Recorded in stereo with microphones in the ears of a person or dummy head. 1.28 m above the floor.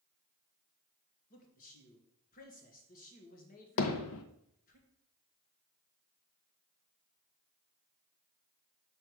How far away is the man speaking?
About 1.5 m.